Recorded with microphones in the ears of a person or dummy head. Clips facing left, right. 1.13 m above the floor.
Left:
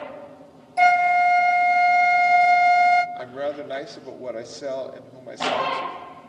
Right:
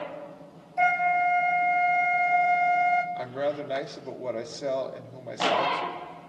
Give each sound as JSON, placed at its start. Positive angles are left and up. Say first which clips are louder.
{"t": 0.8, "sound": "a flute", "louder": "left 7 dB", "side_deg": 55, "distance_m": 0.8}
{"t": 3.1, "sound": "a woman speaking", "louder": "left 1 dB", "side_deg": 0, "distance_m": 2.5}